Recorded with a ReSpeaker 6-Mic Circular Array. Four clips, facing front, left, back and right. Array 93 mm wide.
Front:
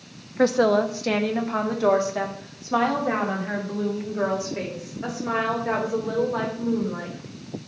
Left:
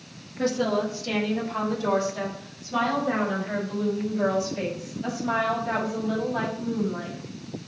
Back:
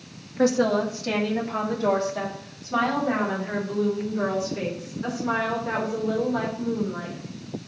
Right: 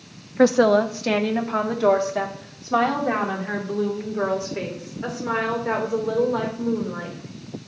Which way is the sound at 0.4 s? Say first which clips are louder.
Right 9 dB, front 2 dB; 70° right.